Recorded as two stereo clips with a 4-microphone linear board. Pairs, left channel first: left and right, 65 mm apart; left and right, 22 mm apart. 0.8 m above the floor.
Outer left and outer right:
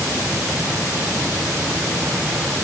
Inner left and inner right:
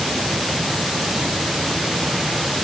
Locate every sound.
Only background noise.